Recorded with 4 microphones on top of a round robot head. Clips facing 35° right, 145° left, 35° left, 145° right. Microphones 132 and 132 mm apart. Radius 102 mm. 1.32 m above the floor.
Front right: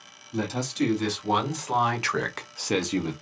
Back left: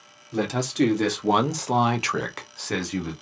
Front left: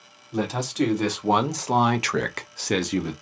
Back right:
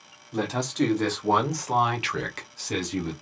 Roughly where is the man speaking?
Behind left.